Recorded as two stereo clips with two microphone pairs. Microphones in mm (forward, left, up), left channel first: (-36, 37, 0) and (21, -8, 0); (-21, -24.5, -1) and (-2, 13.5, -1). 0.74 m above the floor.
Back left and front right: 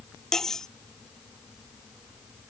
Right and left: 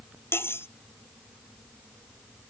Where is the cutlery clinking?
135° right.